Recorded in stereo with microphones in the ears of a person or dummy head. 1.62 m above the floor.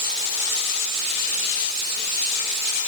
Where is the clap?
No clap in this recording.